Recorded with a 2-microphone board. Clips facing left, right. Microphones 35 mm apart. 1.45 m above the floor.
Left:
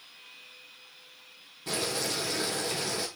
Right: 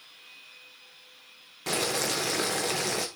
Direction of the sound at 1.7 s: 85° right.